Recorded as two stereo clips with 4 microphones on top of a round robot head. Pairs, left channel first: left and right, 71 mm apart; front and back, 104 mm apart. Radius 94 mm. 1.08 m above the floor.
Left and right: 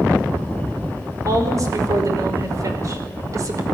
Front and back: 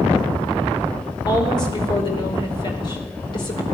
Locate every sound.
1.2 s a woman speaking: 50° right, 5 m